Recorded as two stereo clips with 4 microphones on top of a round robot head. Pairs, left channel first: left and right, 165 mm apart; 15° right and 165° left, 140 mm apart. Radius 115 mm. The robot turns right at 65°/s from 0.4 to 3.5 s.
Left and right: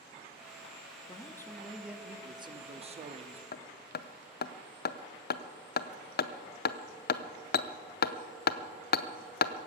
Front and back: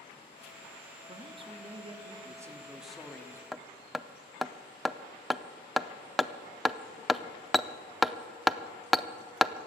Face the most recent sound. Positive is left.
turn(degrees=75)